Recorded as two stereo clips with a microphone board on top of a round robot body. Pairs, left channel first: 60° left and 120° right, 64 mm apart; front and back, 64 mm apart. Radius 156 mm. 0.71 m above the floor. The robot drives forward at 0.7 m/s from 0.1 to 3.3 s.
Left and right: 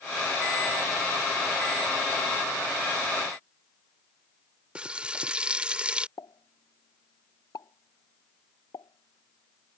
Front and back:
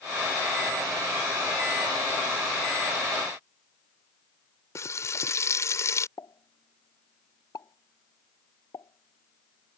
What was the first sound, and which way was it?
Frying, 45° right.